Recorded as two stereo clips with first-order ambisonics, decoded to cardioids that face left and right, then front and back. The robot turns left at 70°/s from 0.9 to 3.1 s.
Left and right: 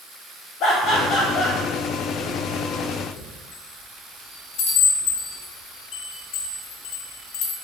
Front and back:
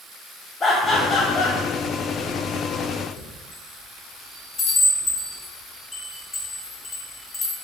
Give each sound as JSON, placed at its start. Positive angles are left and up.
{"t": 0.6, "sound": "laughter", "azimuth_deg": 70, "distance_m": 1.3}
{"t": 3.2, "sound": "a chime", "azimuth_deg": 65, "distance_m": 1.1}